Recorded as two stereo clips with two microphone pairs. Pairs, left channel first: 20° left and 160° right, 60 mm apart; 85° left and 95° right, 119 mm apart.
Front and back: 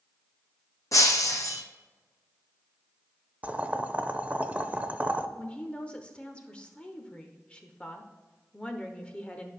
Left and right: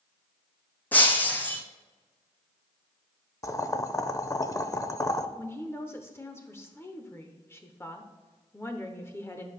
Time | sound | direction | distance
0.9 | breaking glass | 10° left | 1.2 m
3.4 | boiling | 140° left | 0.5 m
5.4 | a woman speaking | 55° left | 0.8 m